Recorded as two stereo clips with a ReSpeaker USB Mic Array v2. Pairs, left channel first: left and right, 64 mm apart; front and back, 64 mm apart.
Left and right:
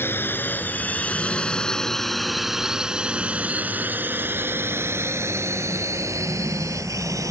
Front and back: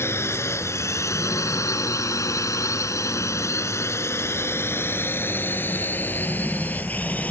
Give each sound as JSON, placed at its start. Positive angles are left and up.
{"t": 0.0, "sound": "a drone", "azimuth_deg": 40}